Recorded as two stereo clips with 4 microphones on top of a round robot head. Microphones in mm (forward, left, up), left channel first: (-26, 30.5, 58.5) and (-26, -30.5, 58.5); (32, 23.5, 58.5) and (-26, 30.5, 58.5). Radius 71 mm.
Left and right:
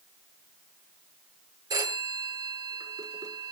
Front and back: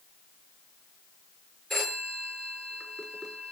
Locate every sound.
1.7 s a phone ringing: 95° right, 8 m